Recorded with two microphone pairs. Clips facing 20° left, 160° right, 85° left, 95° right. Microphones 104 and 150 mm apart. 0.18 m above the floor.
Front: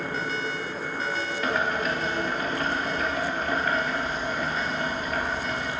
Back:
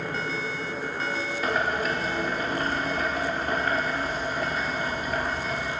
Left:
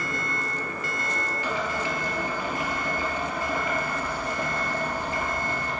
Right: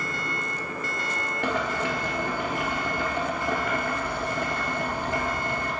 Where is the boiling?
75° right, 1.3 m.